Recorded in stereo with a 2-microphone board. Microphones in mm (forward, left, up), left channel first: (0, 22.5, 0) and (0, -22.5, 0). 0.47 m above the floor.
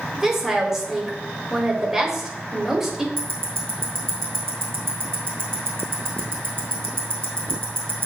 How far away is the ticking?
About 2 m.